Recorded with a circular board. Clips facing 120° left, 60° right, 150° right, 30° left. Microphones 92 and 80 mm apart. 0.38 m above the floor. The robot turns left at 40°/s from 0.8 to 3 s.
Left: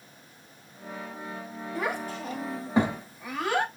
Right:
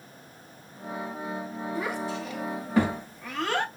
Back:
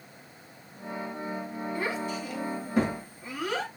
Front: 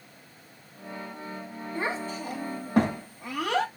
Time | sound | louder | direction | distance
1.8 | a child speaking | left 1 dB, front 2 dB | 95° left | 1.3 m